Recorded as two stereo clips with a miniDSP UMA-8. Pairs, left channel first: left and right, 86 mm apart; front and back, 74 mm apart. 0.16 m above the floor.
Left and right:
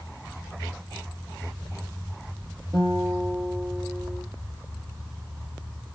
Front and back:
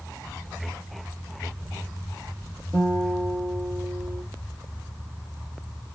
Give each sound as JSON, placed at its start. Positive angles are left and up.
{"t": 2.7, "sound": "a guitar", "azimuth_deg": -135, "distance_m": 2.0}